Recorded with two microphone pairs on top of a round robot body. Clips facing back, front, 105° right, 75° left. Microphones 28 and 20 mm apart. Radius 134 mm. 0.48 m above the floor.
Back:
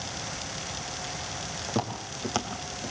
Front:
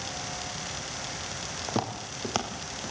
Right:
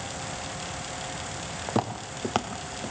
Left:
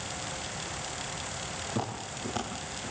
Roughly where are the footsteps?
Right.